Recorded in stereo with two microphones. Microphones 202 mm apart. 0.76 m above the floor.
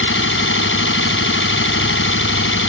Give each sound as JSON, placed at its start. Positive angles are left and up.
{"t": 0.0, "sound": "an engine running", "side_deg": 85}